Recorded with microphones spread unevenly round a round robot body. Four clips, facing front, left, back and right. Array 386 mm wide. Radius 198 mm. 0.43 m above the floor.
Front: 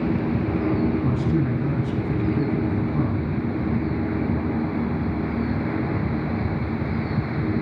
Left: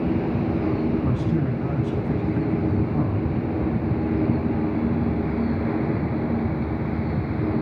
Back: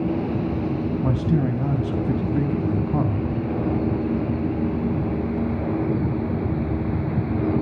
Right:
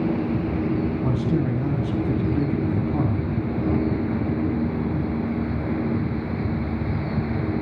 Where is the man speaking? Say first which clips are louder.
Right 1 dB, even; 155° right, 3 m.